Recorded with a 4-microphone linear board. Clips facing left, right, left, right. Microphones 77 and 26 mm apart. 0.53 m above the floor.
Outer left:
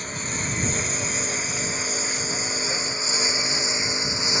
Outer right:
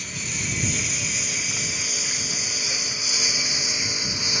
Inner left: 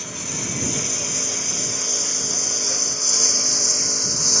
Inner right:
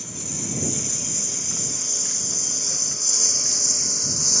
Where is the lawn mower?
35° left (ahead or behind); by 4.4 s 25° left (ahead or behind).